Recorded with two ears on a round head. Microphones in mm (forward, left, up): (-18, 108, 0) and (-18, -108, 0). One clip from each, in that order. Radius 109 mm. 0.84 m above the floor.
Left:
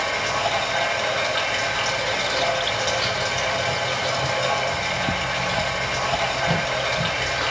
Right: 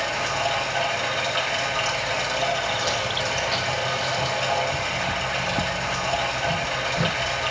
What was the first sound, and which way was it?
Running water, 5° right (ahead or behind).